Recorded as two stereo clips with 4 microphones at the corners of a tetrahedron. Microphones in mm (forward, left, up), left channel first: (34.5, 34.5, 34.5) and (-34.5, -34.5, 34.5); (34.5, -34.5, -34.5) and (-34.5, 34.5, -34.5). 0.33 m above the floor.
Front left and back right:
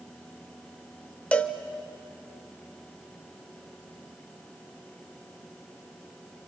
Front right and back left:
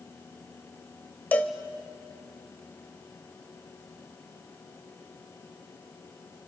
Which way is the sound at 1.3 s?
10° right.